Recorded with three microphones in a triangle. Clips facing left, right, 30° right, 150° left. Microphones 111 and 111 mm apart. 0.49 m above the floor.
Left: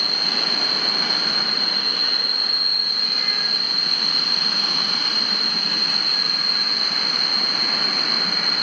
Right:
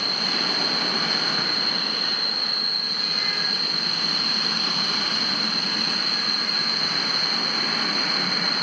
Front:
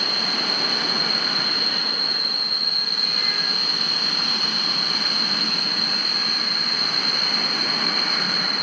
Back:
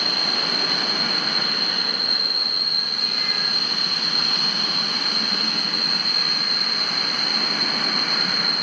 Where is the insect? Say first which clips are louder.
Even, even; 70° left, 5 m.